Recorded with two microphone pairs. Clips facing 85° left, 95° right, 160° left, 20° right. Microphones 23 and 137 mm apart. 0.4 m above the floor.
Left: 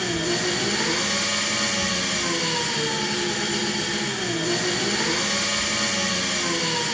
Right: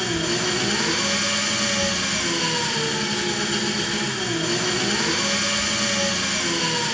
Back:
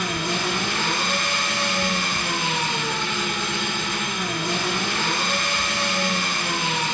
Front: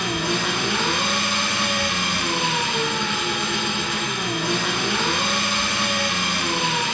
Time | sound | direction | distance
0.0 | an engine running | 40° right | 4 m